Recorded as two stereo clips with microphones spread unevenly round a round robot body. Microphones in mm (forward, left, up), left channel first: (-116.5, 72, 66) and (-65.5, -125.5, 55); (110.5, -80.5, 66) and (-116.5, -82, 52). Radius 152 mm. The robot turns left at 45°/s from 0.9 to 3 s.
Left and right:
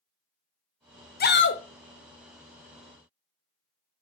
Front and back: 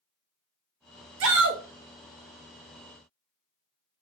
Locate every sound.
1.2 s a shout: 150° left, 0.7 m; by 1.6 s 130° left, 0.7 m